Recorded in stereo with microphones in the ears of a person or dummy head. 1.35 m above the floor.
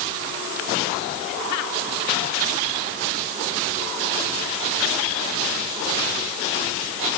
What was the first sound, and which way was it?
Only background noise.